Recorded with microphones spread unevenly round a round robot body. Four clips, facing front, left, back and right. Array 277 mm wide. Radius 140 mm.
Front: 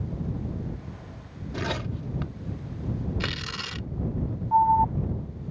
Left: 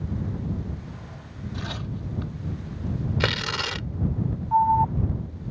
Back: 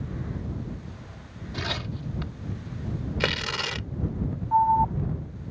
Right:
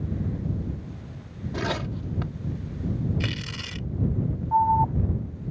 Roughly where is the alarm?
Right.